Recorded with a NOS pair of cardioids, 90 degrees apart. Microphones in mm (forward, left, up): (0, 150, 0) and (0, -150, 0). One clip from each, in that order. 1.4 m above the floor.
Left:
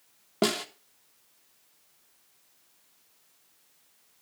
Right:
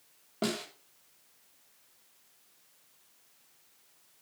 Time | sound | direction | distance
0.4 | a snare drum | 50° left | 1.5 m